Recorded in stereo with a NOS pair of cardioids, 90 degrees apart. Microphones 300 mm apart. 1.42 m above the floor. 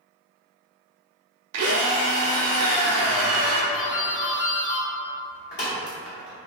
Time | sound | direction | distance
1.5 | a drill | 55° right | 0.5 m
3.7 | a doorbell | 35° left | 1.3 m